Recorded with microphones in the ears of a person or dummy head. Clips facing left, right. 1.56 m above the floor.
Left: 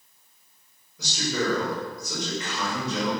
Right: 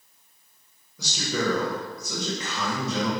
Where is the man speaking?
85° right, 1.8 m.